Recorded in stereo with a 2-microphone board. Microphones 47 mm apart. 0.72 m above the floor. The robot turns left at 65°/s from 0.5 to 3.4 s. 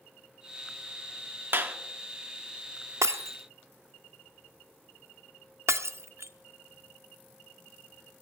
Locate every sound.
1.5 s a clap: 50° right (ahead or behind), 1.6 m; by 1.8 s 40° right (ahead or behind), 1.6 m
3.0 s breaking glass: 85° right, 0.6 m; by 6.3 s 70° right (ahead or behind), 0.6 m